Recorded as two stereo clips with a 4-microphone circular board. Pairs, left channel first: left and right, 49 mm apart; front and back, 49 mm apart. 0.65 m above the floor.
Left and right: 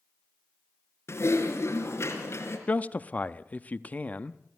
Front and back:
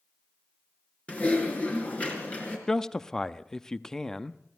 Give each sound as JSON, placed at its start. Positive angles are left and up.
{"t": 1.1, "sound": "typing on a keyboard", "azimuth_deg": 60, "distance_m": 4.0}
{"t": 2.7, "sound": "a man speaking", "azimuth_deg": 70, "distance_m": 0.6}